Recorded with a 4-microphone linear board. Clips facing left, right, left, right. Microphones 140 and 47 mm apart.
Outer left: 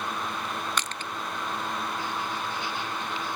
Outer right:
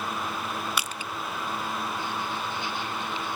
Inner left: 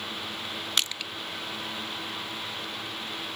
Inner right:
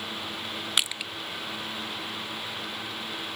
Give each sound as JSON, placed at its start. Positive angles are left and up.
{"t": 0.8, "sound": "crushing", "side_deg": -10, "distance_m": 0.5}